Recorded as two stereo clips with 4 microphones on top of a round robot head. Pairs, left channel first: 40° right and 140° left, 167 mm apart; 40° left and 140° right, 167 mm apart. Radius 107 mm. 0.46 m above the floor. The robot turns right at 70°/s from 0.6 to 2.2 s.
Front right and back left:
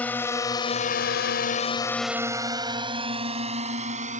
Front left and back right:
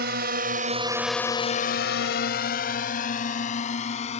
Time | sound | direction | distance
0.0 | a drone | 120° right | ?